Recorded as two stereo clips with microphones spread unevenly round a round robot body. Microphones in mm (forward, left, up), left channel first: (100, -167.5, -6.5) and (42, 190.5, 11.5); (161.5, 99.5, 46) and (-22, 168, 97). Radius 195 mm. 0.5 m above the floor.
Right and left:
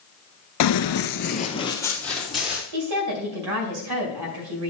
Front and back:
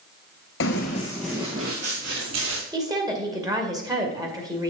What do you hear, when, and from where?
0.6 s running footsteps: 55° right, 0.6 m; by 2.6 s 175° right, 1.2 m
2.7 s a woman speaking: 80° left, 2.5 m